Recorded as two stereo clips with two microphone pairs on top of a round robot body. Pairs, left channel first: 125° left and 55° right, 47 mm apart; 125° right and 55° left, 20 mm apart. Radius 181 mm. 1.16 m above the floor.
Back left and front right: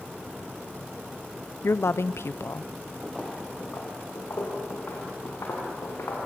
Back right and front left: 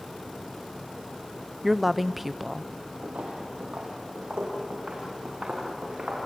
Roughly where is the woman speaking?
Behind left.